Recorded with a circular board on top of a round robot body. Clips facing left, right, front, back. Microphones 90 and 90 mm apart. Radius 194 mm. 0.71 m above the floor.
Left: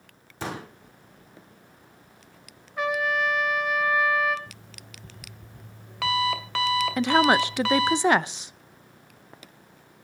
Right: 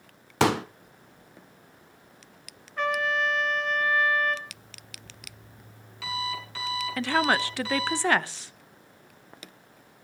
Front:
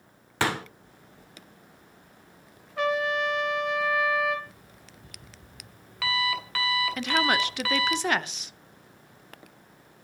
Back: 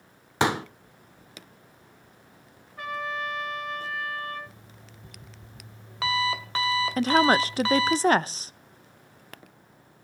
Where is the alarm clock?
115° left, 2.5 m.